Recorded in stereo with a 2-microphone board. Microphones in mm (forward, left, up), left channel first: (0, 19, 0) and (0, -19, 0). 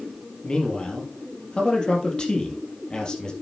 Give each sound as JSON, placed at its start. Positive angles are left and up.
{"t": 0.4, "sound": "a man speaking", "side_deg": 25, "distance_m": 3.0}